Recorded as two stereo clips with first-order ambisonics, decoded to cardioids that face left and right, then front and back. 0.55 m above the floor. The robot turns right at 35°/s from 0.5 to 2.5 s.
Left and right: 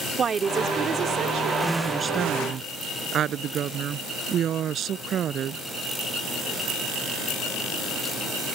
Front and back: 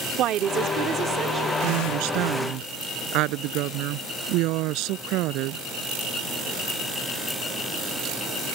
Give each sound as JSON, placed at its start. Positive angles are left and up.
{"t": 0.2, "sound": "a woman speaking", "azimuth_deg": -150}
{"t": 1.6, "sound": "a woman speaking", "azimuth_deg": 180}